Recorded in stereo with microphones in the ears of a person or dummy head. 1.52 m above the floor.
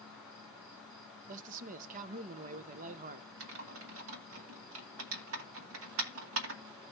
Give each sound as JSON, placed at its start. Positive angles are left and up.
{"t": 0.0, "sound": "an insect", "side_deg": 5, "distance_m": 9.0}
{"t": 1.3, "sound": "a man speaking", "side_deg": -45, "distance_m": 0.7}
{"t": 3.4, "sound": "typing on a keyboard", "side_deg": -85, "distance_m": 2.0}